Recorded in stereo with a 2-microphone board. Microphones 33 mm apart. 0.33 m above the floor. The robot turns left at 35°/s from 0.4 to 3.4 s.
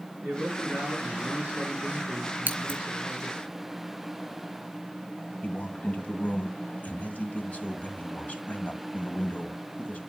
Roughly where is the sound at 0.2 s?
Ahead right.